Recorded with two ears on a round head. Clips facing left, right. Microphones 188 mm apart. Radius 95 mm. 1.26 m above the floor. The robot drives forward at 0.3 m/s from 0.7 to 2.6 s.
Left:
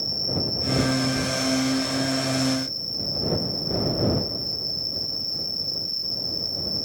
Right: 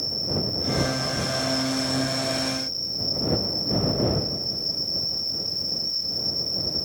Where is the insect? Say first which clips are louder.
Even; 50° left (ahead or behind), 3 m; by 6.9 s 45° left (ahead or behind), 3.5 m.